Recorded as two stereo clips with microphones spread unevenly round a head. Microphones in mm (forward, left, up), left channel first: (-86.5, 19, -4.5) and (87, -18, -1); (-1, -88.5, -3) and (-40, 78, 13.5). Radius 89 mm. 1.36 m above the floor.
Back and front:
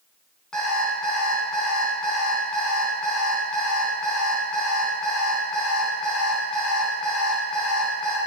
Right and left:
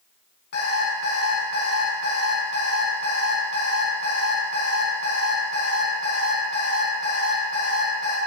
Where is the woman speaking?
No woman speaking in this recording.